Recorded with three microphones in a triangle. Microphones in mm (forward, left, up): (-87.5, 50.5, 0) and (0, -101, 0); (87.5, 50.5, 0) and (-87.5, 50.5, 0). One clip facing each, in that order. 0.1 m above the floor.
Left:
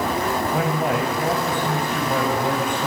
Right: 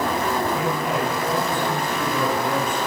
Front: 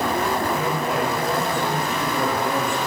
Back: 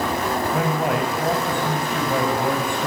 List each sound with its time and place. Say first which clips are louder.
0.5 s a man speaking: left 2 dB, back 2 dB; 150° left, 8 m